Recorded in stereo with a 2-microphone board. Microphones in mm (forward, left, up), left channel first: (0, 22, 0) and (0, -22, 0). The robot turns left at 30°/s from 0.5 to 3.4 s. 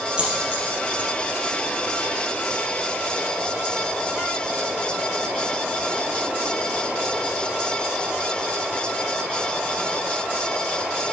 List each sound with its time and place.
0.2 s a dropped coin: 25° right (ahead or behind), 3 m; by 1.1 s 40° right (ahead or behind), 3 m